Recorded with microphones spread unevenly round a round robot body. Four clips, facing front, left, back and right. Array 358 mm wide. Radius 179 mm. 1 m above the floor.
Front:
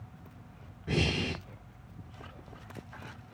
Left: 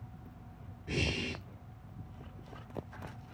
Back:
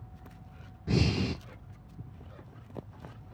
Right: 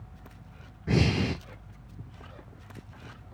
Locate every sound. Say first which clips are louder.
0.9 s breathing: right 10 dB, back 2 dB; 90° right, 0.7 m